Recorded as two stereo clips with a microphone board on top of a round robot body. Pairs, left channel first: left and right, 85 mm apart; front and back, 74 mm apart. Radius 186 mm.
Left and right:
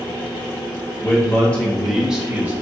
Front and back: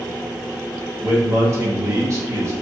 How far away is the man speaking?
About 1.4 m.